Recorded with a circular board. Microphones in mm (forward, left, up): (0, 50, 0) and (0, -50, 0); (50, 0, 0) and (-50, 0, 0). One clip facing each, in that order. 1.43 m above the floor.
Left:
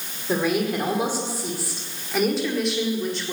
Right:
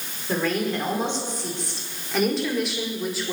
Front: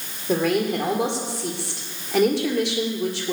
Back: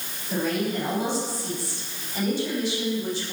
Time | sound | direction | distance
0.3 | a woman speaking | 15° left | 5.5 m